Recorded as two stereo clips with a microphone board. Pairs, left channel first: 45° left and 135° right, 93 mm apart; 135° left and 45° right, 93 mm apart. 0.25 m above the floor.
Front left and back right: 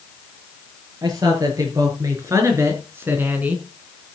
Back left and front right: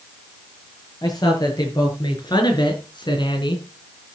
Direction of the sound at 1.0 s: Straight behind.